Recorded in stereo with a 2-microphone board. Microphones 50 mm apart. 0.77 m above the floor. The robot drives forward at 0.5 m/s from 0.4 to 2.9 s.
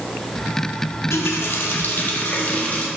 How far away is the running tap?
About 0.9 m.